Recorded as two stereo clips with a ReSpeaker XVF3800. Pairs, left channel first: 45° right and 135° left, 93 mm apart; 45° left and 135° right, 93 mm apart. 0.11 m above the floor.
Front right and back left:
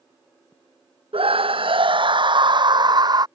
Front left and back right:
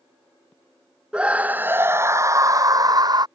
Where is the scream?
145° left; by 3.3 s straight behind.